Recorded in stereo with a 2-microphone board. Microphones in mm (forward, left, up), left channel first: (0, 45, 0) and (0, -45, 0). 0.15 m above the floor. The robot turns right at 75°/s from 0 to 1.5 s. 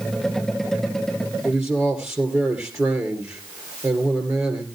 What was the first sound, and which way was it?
A man speaking, 35° right (ahead or behind).